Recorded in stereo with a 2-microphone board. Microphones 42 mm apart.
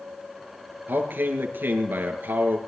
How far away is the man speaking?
About 3 m.